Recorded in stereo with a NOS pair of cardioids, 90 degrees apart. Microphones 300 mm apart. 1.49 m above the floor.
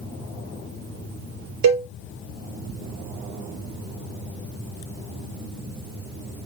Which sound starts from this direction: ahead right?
A cowbell, at 1.6 s.